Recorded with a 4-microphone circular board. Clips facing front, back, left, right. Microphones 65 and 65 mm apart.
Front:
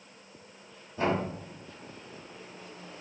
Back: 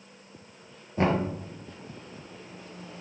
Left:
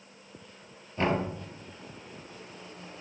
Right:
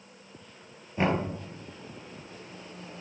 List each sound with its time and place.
1.0 s knocking: 160° right, 2.5 m